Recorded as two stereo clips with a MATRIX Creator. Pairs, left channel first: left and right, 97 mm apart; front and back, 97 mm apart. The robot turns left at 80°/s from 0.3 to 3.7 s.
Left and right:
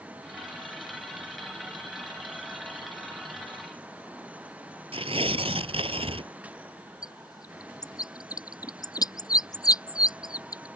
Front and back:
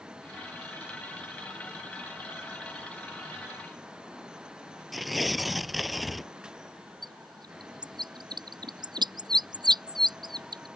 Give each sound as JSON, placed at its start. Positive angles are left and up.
{"t": 4.9, "sound": "tearing paper", "azimuth_deg": -90}
{"t": 7.0, "sound": "a bird", "azimuth_deg": 140}